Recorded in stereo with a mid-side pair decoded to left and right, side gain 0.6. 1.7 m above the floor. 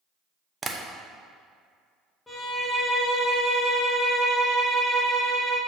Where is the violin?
10° left, 2 m.